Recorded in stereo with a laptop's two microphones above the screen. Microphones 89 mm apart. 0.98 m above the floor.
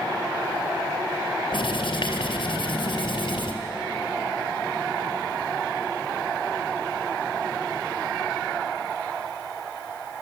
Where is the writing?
65° left (ahead or behind), 3 m.